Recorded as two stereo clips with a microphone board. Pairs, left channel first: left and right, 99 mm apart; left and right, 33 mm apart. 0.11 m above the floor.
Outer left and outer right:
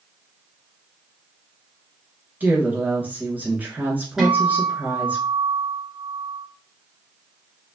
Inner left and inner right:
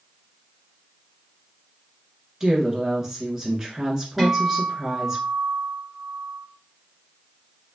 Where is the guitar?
5° right (ahead or behind), 1.3 m.